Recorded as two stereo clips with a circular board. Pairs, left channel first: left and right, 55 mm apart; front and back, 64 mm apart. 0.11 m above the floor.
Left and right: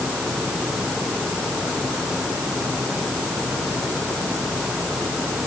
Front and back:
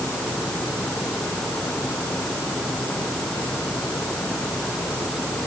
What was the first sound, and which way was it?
Only background noise.